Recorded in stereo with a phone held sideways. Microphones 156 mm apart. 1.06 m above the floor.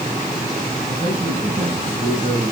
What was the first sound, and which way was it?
A man speaking, 55° right (ahead or behind).